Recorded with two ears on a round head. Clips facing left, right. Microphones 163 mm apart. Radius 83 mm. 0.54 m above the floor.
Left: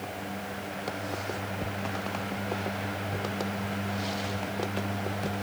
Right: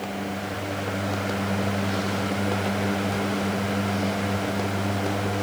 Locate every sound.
Only background noise.